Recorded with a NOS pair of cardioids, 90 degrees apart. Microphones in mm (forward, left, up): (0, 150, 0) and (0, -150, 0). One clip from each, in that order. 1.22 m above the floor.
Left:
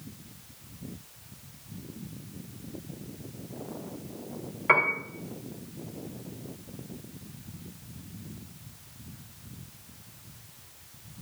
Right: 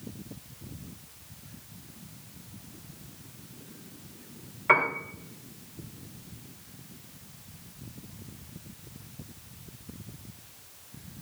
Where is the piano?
10° left, 3 m.